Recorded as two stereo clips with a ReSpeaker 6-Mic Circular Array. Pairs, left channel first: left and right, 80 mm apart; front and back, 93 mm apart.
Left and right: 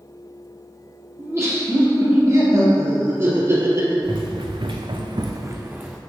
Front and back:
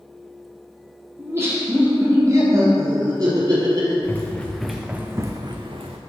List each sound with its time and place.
1.2 s laughter: 130° right, 1.8 m; by 3.9 s 135° right, 3 m
4.0 s running footsteps: 70° right, 1.3 m; by 6.0 s 165° right, 1.0 m